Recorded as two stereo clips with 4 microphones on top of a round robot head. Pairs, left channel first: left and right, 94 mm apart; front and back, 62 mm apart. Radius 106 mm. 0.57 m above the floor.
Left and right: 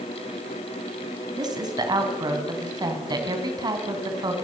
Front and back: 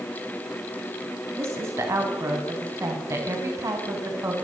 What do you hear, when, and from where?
1.4 s a woman speaking: 135° right, 4.5 m